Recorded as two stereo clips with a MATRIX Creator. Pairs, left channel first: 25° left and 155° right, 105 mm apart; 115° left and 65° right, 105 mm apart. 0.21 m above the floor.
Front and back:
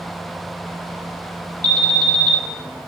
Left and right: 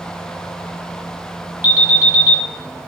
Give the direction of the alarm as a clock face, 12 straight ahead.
5 o'clock.